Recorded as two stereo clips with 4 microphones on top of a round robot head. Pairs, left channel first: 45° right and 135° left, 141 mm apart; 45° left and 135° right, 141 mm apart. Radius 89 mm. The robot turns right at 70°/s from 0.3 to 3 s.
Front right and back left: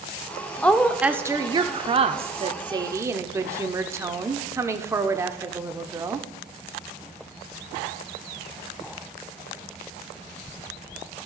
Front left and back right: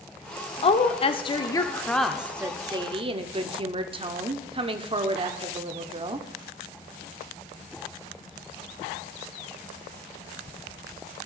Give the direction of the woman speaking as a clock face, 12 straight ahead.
11 o'clock.